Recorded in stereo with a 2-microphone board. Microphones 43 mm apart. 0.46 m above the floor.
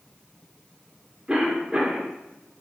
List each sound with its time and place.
1.3 s a cough: 20° right (ahead or behind), 1.0 m